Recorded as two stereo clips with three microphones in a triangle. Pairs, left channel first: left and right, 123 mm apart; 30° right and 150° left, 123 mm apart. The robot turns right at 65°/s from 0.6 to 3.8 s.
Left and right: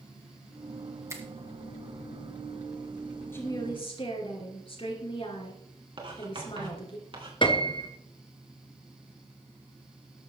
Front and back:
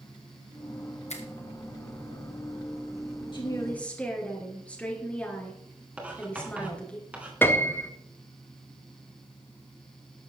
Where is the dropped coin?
No dropped coin in this recording.